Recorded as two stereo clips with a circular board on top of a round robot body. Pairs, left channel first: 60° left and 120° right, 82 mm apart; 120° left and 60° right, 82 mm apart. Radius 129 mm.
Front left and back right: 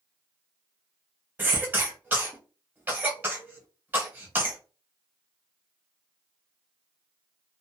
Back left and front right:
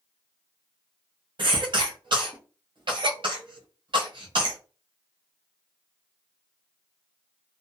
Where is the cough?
55° right, 1.3 m.